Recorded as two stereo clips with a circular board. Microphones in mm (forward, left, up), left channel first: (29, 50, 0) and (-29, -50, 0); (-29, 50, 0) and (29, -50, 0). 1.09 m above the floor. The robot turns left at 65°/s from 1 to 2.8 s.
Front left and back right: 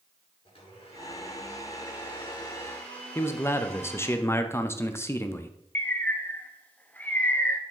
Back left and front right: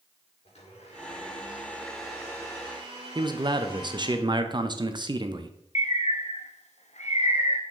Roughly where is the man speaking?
Ahead.